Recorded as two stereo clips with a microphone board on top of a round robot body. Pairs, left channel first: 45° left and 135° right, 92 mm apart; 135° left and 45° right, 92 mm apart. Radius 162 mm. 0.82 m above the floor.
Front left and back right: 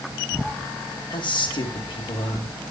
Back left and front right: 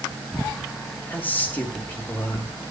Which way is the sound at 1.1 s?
65° left.